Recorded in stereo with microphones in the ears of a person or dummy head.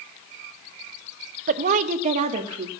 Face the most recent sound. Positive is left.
turn(degrees=-35)  # may be behind; listen again after turning